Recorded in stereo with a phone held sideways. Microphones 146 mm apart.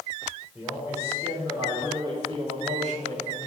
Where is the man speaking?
10° right (ahead or behind), 4 m; by 3.4 s 70° right (ahead or behind), 2 m.